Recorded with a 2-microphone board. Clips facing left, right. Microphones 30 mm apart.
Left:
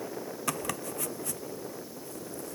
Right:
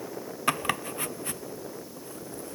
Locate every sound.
0.5 s chopping: 40° right (ahead or behind)